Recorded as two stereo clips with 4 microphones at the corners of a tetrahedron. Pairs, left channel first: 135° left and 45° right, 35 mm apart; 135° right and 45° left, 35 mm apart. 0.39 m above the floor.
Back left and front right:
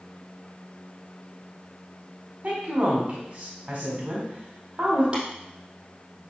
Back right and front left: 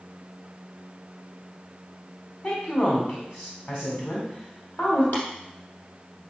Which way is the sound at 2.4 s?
100° right.